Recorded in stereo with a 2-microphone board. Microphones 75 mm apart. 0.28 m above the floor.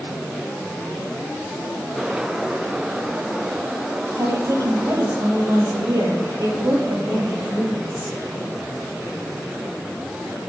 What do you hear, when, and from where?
4.2 s a woman speaking: 60° right (ahead or behind), 6 m; by 8.2 s 65° right (ahead or behind), 8.5 m